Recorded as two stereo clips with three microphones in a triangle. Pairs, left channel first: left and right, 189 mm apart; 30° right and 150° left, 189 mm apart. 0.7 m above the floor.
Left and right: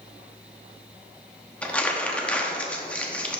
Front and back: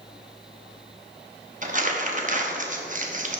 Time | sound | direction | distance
1.6 | crumpling | 170° left | 0.9 m